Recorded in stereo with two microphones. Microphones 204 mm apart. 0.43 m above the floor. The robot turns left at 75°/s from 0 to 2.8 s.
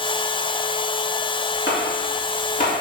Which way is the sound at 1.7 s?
65° left (ahead or behind).